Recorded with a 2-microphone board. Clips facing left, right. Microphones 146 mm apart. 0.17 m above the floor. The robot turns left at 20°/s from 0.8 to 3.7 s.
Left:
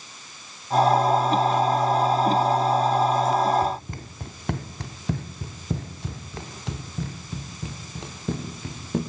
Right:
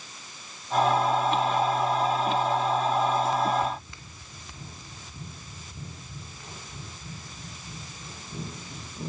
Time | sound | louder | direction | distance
3.6 | running footsteps | left 4 dB | 30° left (ahead or behind) | 1.7 m